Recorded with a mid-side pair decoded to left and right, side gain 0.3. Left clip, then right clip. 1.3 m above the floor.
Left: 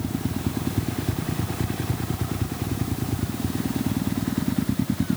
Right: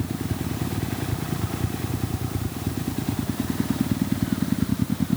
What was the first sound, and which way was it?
Only background noise.